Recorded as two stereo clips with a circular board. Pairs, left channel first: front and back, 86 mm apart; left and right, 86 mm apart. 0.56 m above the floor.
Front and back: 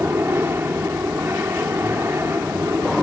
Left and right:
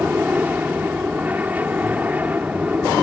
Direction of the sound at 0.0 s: 145° right.